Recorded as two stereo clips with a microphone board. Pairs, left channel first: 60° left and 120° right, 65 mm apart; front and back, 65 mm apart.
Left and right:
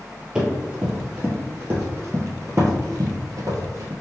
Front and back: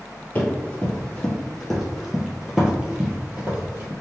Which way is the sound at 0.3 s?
50° right.